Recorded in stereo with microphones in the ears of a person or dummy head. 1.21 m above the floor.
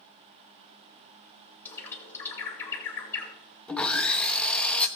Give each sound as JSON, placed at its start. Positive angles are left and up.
{"t": 1.6, "sound": "a bird", "side_deg": 10, "distance_m": 2.0}
{"t": 3.7, "sound": "sawing", "side_deg": 0, "distance_m": 0.8}